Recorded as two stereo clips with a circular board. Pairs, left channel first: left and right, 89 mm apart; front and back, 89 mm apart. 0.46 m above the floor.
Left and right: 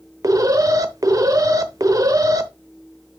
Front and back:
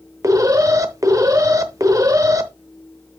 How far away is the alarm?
About 0.8 m.